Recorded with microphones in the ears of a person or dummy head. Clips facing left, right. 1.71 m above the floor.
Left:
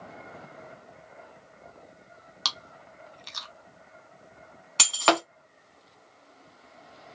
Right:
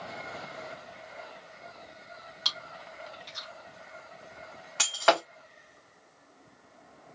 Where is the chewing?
75° left (ahead or behind), 1.0 m.